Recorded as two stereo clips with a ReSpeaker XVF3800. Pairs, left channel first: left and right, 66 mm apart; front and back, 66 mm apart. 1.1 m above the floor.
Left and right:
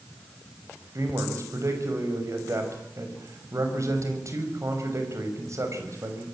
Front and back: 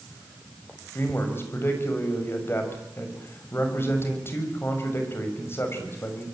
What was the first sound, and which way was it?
A man speaking, 50° right.